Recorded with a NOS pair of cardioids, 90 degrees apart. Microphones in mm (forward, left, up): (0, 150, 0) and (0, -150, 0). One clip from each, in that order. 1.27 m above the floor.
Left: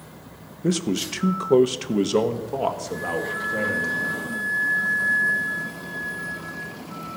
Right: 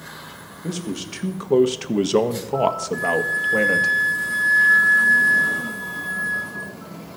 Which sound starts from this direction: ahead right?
A flute, at 2.9 s.